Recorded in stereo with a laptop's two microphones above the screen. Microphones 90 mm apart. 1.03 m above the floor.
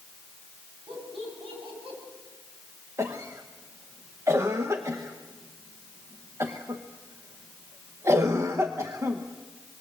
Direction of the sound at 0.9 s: 85° right.